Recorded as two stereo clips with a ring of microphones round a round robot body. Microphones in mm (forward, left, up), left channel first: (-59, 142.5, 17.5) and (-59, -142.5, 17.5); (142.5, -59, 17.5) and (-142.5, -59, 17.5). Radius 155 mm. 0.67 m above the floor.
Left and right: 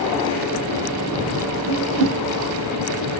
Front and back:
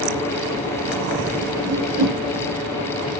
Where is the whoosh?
130° right, 2 m.